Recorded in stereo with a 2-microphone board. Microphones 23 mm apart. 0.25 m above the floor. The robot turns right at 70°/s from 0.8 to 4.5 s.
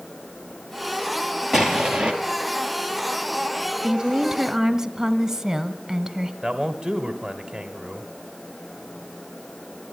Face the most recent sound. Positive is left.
turn(degrees=-10)  # may be behind; listen again after turning